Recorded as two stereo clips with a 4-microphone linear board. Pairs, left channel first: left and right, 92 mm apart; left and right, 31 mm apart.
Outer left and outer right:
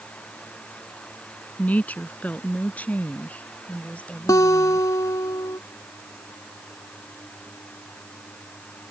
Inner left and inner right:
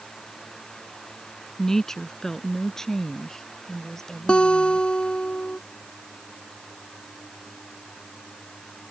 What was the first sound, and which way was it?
A woman speaking, 15° left (ahead or behind).